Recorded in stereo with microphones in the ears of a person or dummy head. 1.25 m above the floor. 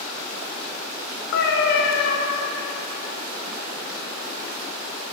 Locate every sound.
1.3 s a cat meowing: 65° left (ahead or behind), 1.1 m